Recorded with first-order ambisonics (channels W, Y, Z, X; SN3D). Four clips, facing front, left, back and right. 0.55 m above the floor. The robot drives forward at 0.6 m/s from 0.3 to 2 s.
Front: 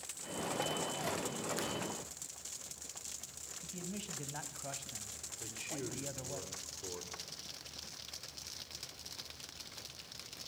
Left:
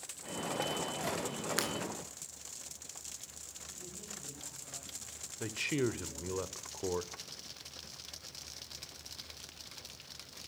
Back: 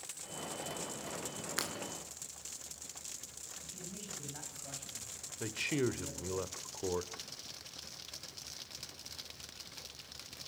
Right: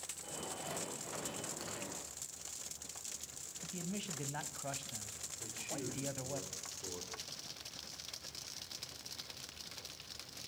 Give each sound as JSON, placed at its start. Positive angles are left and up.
{"t": 1.6, "sound": "breaking glass", "azimuth_deg": 115, "distance_m": 4.5}
{"t": 3.6, "sound": "a man speaking", "azimuth_deg": -65, "distance_m": 3.5}
{"t": 5.4, "sound": "a man speaking", "azimuth_deg": 125, "distance_m": 1.7}